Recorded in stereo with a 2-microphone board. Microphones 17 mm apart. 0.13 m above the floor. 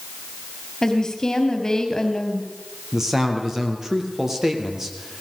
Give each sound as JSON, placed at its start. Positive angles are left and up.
{"t": 0.8, "sound": "a woman speaking", "side_deg": 35, "distance_m": 3.5}
{"t": 2.9, "sound": "a man speaking", "side_deg": -20, "distance_m": 3.5}